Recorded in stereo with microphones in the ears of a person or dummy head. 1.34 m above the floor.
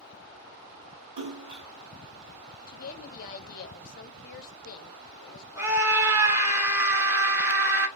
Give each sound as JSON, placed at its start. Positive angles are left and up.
{"t": 1.2, "sound": "a splash", "side_deg": -60, "distance_m": 1.5}
{"t": 2.7, "sound": "a woman speaking", "side_deg": 45, "distance_m": 0.7}
{"t": 5.6, "sound": "a scream", "side_deg": -15, "distance_m": 1.7}